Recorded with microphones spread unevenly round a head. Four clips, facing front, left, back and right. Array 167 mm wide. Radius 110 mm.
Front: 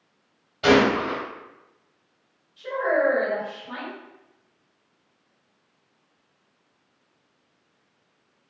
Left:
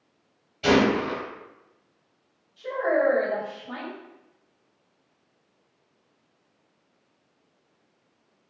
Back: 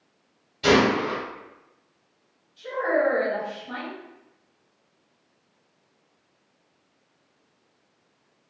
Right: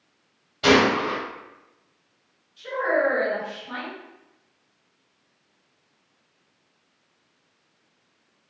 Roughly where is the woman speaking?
Left.